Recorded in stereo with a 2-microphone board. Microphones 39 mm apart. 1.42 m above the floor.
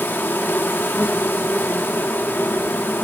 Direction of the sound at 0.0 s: 65° left (ahead or behind).